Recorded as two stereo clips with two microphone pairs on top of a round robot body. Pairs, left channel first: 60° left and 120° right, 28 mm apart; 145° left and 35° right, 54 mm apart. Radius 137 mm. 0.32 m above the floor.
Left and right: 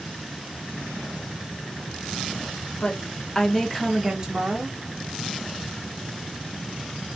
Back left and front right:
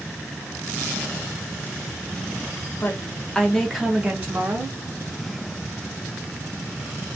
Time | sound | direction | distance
2.7 | a woman speaking | 95° left | 1.1 m